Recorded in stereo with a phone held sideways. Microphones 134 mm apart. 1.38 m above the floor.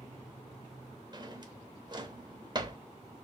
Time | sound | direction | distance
1.1 | a drawer | 35° right (ahead or behind) | 0.9 m